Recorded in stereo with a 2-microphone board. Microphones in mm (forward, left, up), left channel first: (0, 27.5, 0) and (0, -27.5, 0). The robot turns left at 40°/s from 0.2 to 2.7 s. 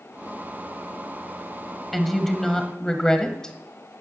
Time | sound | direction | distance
1.9 | a woman speaking | 5° left (ahead or behind) | 1.2 m